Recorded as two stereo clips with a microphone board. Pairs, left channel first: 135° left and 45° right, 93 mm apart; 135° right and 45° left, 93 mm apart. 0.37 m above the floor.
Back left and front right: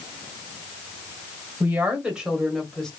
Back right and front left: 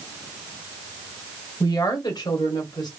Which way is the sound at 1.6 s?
110° right.